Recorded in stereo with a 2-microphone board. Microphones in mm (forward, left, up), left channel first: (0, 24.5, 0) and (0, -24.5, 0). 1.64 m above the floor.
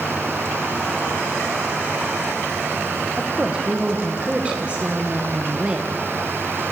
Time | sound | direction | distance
3.2 | a woman speaking | 25° right (ahead or behind) | 1.9 m